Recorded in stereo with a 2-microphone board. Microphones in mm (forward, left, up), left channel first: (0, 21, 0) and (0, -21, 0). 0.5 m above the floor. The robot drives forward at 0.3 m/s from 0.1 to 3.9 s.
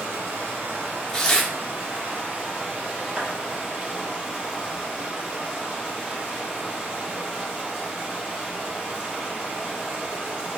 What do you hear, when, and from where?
0.0 s running water: 70° right (ahead or behind), 1.3 m; by 10.6 s 35° right (ahead or behind), 1.9 m
1.1 s tearing paper: 15° left (ahead or behind), 0.6 m
3.2 s a clap: 20° right (ahead or behind), 1.7 m